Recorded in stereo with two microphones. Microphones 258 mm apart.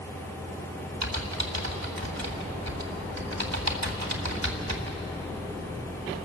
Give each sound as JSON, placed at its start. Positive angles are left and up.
{"t": 1.0, "sound": "typing on a keyboard", "side_deg": -80, "distance_m": 1.9}